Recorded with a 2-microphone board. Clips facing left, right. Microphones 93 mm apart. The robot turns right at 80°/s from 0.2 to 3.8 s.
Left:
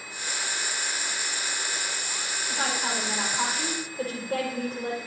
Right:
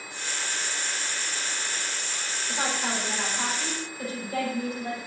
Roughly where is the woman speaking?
Ahead right.